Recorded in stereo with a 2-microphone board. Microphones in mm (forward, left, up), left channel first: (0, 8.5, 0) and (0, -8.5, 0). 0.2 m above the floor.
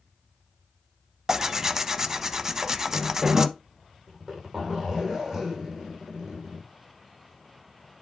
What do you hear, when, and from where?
1.3 s tearing paper: 20° right (ahead or behind), 0.5 m
4.1 s a zipper: 20° right (ahead or behind), 4.5 m